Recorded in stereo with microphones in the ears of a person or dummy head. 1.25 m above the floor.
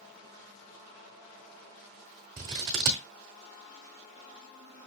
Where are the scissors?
10° right (ahead or behind), 1.0 m.